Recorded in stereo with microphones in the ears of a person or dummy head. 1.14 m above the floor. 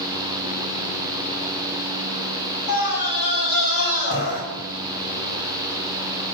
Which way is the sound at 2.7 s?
75° left (ahead or behind).